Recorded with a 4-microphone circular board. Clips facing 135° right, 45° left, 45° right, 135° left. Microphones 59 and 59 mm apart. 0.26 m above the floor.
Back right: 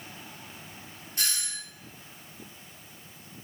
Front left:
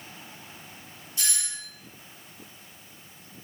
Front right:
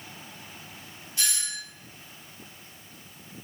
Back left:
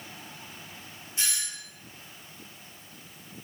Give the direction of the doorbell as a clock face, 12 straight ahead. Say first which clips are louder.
Even, front right 2 dB; 5 o'clock.